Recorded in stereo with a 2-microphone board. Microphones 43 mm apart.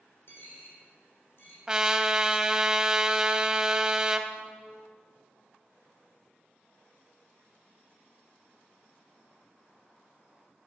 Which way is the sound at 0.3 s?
60° left (ahead or behind).